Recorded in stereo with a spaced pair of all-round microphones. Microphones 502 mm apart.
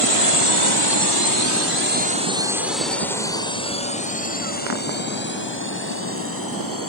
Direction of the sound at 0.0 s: 80° right.